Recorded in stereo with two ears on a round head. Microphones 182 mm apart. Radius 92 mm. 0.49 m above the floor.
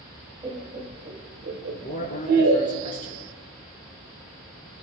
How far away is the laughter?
About 2.5 m.